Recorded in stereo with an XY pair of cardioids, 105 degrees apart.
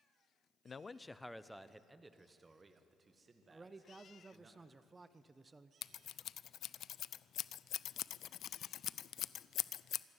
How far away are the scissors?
About 0.5 m.